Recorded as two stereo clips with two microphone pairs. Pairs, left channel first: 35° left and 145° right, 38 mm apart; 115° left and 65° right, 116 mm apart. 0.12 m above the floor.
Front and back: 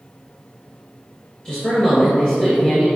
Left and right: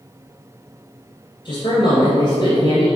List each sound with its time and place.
1.4 s a man speaking: 95° left, 2.0 m